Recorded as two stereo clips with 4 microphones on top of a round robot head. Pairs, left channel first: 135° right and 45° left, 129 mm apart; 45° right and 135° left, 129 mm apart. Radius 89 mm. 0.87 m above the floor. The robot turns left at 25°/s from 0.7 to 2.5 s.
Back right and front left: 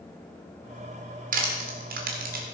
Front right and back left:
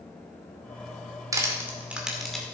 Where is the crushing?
65° left, 2.0 m; by 2.4 s 40° left, 2.0 m.